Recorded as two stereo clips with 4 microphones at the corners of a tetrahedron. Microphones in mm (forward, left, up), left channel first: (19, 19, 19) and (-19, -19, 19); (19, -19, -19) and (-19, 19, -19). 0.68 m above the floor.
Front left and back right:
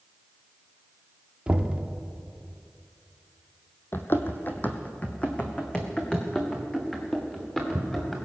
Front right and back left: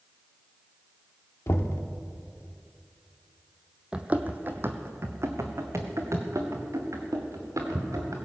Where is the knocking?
65° right, 0.9 m.